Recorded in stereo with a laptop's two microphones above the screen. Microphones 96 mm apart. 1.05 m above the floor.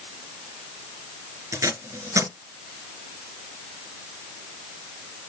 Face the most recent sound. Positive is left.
turn(degrees=-30)  # may be behind; listen again after turning